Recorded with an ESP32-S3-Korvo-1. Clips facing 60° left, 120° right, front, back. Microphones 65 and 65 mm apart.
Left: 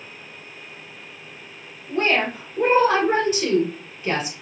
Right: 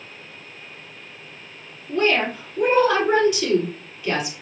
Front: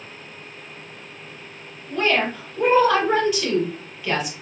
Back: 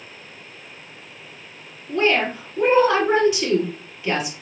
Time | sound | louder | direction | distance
1.9 | a woman speaking | right 1 dB, back 2 dB | 110° left | 2.5 m